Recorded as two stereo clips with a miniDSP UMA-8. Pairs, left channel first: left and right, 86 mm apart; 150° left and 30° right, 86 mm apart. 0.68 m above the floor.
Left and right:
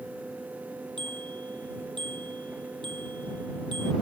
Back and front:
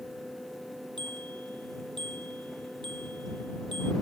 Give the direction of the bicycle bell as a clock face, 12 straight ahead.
2 o'clock.